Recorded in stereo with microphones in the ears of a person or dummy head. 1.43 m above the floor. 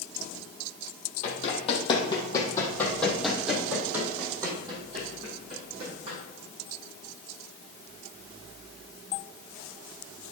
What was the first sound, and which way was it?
Running footsteps, 40° left (ahead or behind).